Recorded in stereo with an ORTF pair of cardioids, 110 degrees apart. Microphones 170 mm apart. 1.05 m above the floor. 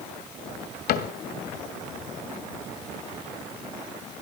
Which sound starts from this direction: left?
A cupboard door, at 0.9 s.